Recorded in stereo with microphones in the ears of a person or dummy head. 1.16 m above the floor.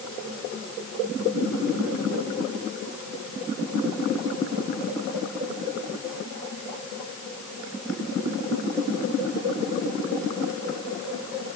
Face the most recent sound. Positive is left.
No sound to turn to.